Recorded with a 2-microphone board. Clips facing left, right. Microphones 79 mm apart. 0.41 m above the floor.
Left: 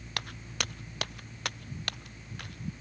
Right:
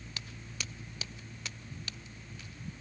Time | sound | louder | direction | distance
0.2 | footsteps | left 9 dB | 70° left (ahead or behind) | ?